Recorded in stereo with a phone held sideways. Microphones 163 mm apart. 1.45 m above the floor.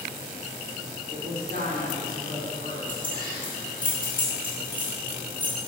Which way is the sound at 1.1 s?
70° right (ahead or behind).